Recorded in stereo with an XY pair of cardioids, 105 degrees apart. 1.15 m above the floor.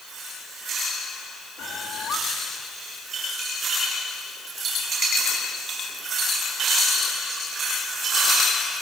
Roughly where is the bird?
Ahead left.